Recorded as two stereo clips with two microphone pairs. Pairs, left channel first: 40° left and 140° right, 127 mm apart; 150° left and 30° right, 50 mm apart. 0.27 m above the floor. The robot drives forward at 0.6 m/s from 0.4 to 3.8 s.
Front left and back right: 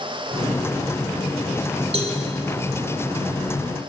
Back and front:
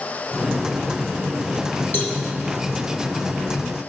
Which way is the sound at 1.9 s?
175° right.